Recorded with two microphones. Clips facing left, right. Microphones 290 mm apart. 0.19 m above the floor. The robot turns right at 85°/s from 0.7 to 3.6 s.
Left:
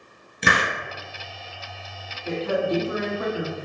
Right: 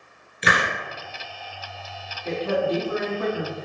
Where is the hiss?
50° left (ahead or behind), 0.6 m; by 0.7 s 55° left (ahead or behind), 0.6 m.